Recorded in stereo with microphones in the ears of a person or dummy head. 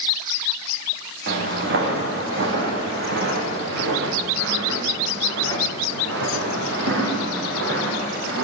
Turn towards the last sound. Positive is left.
turn(degrees=-75)  # may be behind; listen again after turning